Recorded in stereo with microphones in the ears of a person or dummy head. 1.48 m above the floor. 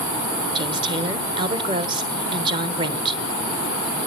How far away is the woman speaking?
About 1.4 m.